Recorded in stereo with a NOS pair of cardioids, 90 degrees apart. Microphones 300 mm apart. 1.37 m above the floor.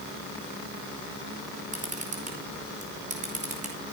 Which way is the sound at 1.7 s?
25° right.